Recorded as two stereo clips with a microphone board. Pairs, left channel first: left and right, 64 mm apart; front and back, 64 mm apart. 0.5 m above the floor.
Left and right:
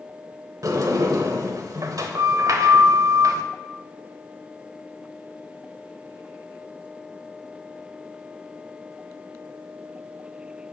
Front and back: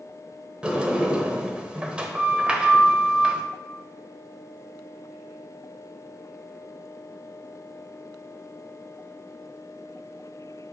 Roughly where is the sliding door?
Right.